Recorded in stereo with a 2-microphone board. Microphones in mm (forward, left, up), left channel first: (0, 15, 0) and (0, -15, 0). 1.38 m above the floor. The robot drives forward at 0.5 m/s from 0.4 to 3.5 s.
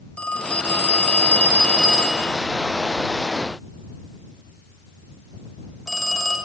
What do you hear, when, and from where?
0.2 s a phone ringing: 40° left (ahead or behind), 0.6 m; by 6.4 s 15° left (ahead or behind), 1.3 m